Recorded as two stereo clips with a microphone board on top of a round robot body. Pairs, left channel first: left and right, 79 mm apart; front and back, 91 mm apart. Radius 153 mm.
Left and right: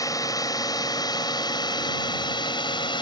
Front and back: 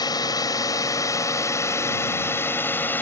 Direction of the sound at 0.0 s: 45° left.